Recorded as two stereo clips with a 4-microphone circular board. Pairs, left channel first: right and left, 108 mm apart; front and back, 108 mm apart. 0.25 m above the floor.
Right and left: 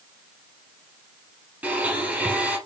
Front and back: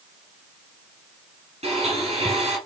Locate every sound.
1.6 s a blender: 165° left, 4 m